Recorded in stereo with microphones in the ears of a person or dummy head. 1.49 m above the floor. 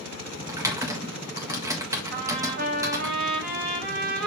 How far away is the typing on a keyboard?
About 1.4 m.